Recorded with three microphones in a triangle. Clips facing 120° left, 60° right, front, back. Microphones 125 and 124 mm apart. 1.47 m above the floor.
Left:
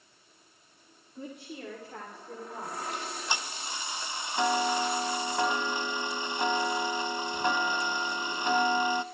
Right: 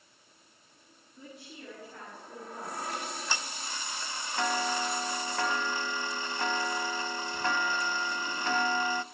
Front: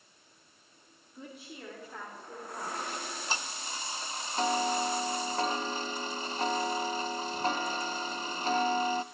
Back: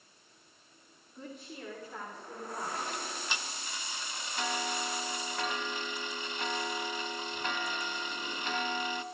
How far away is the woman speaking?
About 3 m.